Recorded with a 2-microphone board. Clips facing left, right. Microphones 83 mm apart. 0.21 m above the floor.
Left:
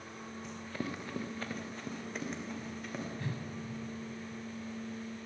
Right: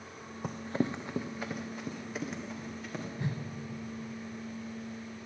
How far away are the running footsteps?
About 0.5 m.